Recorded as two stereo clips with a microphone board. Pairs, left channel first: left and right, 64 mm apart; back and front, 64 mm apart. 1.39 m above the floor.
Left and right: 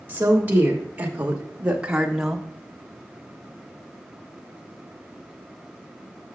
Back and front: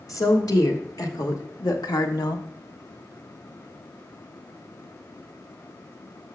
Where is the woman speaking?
155° right, 2.5 m; by 2.5 s straight behind, 1.1 m.